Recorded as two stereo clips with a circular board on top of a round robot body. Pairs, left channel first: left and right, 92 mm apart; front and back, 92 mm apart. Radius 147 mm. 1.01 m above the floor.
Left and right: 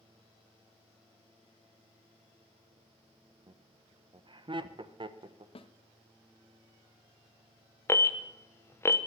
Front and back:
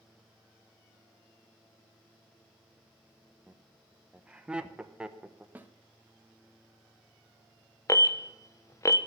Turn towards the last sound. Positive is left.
turn(degrees=40)